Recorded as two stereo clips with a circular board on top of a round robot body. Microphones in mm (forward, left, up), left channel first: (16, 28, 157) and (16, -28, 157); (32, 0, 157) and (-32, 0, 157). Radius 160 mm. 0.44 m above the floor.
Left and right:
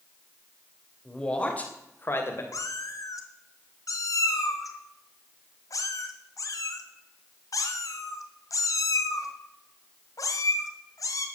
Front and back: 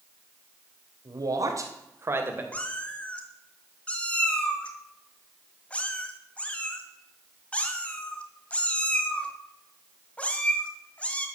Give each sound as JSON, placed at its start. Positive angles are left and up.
{"t": 1.1, "sound": "a man speaking", "azimuth_deg": 170, "distance_m": 3.0}
{"t": 2.5, "sound": "a cat meowing", "azimuth_deg": 70, "distance_m": 1.6}